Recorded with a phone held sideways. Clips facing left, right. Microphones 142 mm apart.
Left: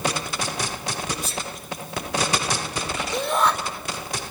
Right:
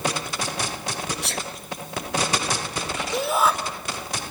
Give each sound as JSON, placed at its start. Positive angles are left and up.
{"t": 1.2, "sound": "a sneeze", "side_deg": -65, "distance_m": 1.2}
{"t": 3.1, "sound": "a shout", "side_deg": -5, "distance_m": 3.5}